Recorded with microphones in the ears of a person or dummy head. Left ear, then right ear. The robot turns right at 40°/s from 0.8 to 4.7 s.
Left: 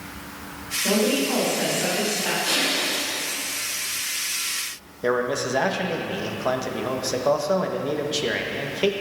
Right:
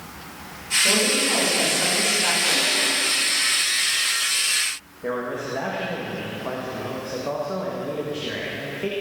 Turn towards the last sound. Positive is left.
turn(degrees=80)